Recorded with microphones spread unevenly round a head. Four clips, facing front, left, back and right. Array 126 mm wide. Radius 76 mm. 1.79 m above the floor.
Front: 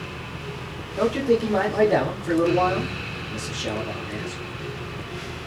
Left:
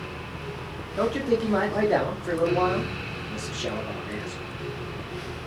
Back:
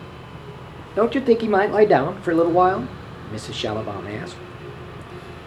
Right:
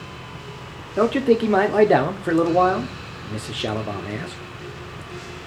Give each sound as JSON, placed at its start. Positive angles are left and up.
{"t": 1.0, "sound": "a man speaking", "azimuth_deg": -140, "distance_m": 1.1}